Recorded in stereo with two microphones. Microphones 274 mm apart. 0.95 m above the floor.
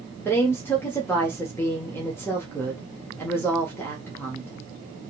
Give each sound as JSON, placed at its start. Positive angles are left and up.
{"t": 0.2, "sound": "a woman speaking", "side_deg": 10, "distance_m": 1.6}